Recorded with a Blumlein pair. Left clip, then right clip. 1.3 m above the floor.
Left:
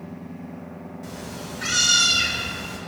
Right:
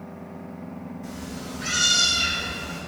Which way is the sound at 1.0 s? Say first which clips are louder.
Left 2 dB; 65° left.